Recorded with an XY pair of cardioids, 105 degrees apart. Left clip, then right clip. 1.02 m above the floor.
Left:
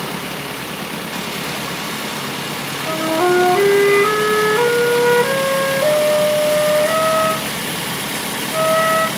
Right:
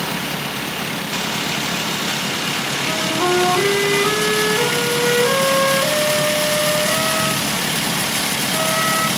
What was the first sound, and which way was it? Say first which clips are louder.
A flute: left 4 dB; 45° left.